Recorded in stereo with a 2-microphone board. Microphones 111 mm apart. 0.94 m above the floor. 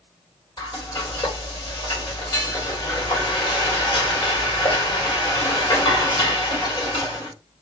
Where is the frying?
40° left (ahead or behind), 2 m.